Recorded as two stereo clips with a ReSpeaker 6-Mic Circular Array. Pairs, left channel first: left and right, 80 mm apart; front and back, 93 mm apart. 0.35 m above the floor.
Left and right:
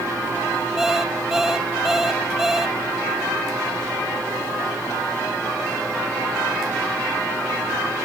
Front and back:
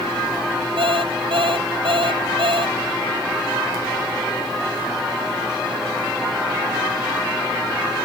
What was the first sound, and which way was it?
An alarm clock, 175° right.